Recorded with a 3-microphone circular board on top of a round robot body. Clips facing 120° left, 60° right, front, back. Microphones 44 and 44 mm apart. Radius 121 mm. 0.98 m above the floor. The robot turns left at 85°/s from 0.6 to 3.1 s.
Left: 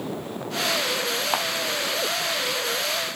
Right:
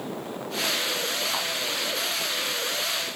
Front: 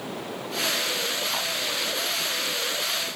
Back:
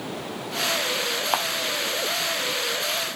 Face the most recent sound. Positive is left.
turn(degrees=25)